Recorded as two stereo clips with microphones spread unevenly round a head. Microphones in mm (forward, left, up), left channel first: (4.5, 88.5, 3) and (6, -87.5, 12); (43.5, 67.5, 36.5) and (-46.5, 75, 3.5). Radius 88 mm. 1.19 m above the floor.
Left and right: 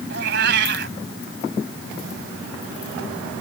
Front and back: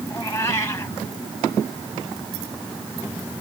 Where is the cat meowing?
70° right.